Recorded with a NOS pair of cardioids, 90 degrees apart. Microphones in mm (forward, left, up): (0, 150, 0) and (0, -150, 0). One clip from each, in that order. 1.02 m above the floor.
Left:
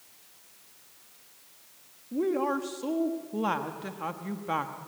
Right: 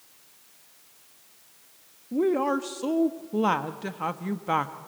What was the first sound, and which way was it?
A woman speaking, 30° right.